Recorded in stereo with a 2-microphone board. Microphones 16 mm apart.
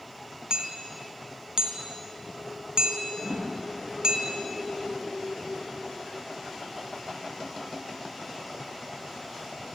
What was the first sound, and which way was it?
Hammering, 60° right (ahead or behind).